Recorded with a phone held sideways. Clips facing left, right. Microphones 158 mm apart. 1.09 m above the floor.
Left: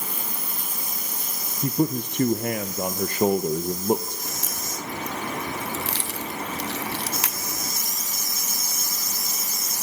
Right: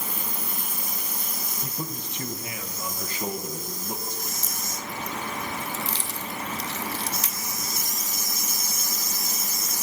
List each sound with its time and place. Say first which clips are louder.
1.6 s a man speaking: left 14 dB; 60° left (ahead or behind), 1.1 m
4.2 s a crack: left 2 dB; 75° left (ahead or behind), 1.5 m